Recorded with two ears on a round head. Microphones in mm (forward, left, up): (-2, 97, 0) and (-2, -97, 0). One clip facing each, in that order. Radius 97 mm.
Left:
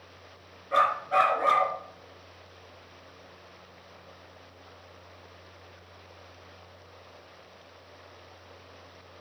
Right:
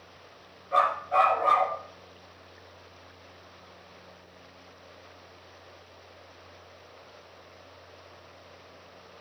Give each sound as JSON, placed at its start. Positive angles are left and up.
{"t": 0.7, "sound": "a dog barking", "side_deg": 25, "distance_m": 3.0}